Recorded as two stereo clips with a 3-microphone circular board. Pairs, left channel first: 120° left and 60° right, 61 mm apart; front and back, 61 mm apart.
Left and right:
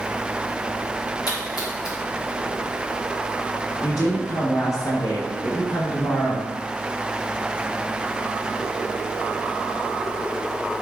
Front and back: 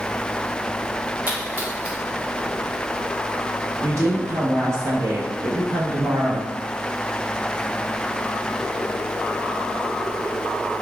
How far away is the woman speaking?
About 1.0 m.